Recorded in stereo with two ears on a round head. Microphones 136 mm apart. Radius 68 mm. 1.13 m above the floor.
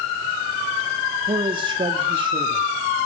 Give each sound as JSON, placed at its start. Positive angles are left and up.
{"t": 1.3, "sound": "a man speaking", "side_deg": -35, "distance_m": 1.8}